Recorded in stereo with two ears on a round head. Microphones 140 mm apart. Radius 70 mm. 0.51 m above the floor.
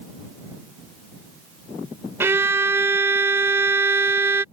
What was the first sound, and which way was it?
A violin, 15° right (ahead or behind).